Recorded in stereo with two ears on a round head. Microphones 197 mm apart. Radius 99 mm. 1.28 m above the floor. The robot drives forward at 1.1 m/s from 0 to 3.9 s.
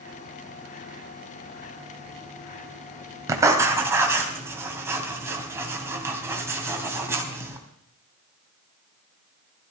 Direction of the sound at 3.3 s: 15° right (ahead or behind).